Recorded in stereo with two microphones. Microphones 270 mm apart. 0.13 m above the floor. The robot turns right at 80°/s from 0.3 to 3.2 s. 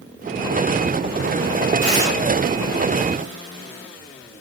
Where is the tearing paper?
15° left (ahead or behind), 5 m; by 2.1 s 40° left (ahead or behind), 5 m.